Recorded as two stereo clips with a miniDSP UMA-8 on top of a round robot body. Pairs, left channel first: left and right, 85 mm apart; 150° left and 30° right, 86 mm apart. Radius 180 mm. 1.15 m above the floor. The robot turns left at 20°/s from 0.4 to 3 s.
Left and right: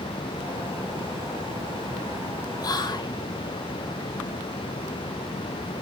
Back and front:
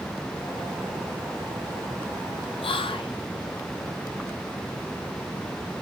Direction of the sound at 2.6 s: 135° left.